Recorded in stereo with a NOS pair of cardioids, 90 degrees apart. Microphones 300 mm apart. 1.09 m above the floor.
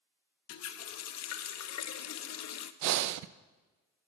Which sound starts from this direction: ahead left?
A running tap, at 0.5 s.